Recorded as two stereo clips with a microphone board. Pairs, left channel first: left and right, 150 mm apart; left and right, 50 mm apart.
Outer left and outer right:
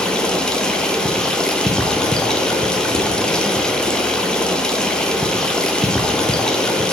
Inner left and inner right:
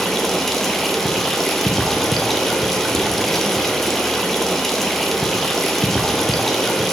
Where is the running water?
5° left (ahead or behind), 0.8 m.